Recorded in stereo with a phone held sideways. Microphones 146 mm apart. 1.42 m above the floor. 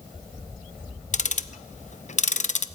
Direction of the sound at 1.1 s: 55° left (ahead or behind).